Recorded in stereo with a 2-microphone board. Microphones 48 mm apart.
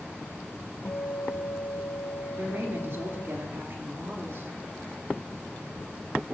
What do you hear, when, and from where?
0.8 s a guitar: 75° left (ahead or behind), 0.9 m
2.4 s a woman speaking: 50° right (ahead or behind), 2.5 m